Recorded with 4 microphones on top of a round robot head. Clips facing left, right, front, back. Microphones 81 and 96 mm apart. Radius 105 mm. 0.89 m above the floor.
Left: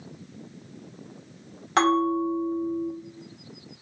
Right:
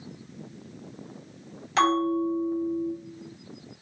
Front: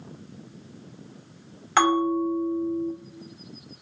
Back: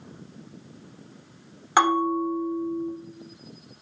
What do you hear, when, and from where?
1.8 s a bell: 115° left, 1.6 m